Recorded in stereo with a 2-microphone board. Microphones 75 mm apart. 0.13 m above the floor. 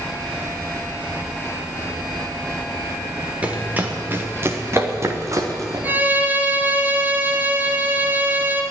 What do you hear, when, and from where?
3.4 s running footsteps: 20° right (ahead or behind), 2.0 m; by 5.8 s 50° right (ahead or behind), 2.5 m
5.8 s a violin: 25° right (ahead or behind), 1.3 m